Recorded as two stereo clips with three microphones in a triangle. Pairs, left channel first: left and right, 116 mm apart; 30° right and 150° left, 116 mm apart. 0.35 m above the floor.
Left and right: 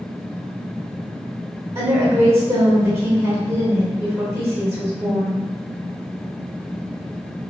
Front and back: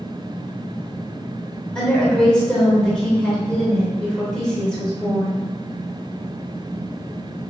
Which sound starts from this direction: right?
A woman speaking, at 1.8 s.